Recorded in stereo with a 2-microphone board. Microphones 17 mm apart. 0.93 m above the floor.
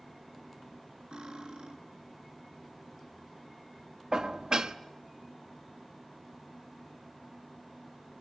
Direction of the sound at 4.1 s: 50° right (ahead or behind).